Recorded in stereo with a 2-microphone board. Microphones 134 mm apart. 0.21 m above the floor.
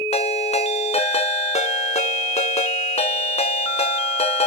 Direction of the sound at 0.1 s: 55° left (ahead or behind).